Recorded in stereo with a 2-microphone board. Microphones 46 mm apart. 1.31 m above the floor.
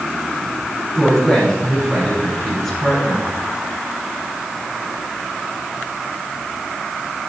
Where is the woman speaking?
Centre (ahead or behind), 5.5 m.